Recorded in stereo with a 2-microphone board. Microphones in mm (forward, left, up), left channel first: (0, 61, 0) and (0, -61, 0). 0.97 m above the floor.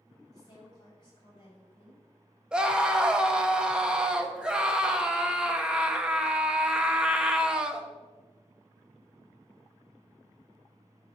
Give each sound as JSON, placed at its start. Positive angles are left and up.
{"t": 0.3, "sound": "a woman speaking", "side_deg": 35, "distance_m": 5.5}
{"t": 2.5, "sound": "a scream", "side_deg": -5, "distance_m": 1.3}